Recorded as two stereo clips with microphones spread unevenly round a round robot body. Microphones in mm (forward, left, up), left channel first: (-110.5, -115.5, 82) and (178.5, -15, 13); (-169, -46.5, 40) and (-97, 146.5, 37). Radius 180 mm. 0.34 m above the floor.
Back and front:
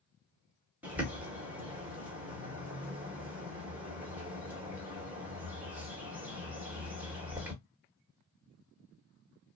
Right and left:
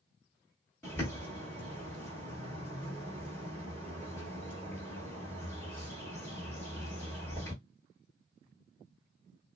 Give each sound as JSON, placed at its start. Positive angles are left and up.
{"t": 0.8, "sound": "a bird", "azimuth_deg": -40, "distance_m": 1.3}